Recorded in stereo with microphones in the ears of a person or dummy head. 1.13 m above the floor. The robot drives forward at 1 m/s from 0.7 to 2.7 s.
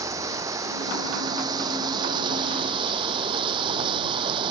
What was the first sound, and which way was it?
Running water, 20° right (ahead or behind).